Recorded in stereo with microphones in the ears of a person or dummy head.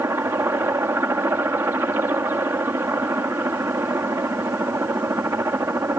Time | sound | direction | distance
0.0 | a helicopter | 10° right (ahead or behind) | ?